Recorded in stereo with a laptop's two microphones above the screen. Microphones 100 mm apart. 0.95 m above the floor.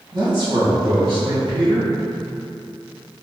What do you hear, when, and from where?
0.1 s a man speaking: 50° right (ahead or behind), 1.0 m